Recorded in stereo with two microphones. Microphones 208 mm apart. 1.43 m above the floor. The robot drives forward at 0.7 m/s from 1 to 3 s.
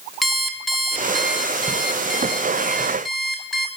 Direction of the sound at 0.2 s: Centre (ahead or behind).